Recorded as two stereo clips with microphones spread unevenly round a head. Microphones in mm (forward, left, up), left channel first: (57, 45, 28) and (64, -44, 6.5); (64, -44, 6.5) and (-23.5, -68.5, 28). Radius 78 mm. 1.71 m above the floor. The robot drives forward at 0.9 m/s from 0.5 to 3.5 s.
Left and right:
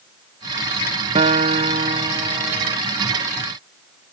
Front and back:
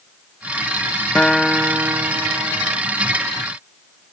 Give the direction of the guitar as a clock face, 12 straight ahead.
2 o'clock.